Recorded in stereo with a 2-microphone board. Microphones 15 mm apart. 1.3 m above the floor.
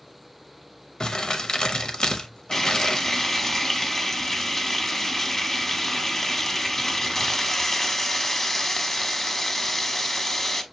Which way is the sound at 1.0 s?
60° left (ahead or behind).